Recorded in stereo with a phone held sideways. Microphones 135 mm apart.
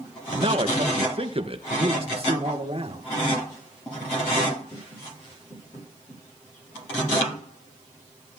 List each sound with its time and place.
0.3 s a man speaking: 45° right (ahead or behind), 1.2 m
1.7 s a man speaking: 45° right (ahead or behind), 2.5 m